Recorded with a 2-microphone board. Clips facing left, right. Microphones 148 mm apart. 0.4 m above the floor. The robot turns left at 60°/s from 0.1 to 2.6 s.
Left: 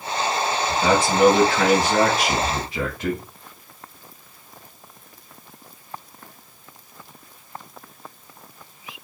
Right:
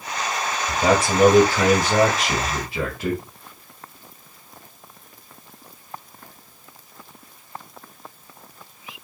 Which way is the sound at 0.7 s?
50° right.